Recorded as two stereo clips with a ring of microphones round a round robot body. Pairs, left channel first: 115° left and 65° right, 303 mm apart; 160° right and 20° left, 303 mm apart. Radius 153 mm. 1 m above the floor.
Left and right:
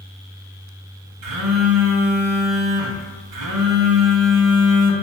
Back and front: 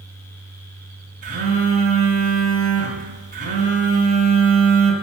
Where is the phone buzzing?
40° right, 2 m.